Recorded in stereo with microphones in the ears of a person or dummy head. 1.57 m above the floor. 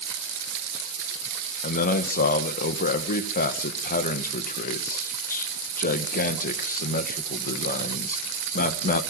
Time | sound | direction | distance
1.6 | a man speaking | 45° left (ahead or behind) | 1.7 m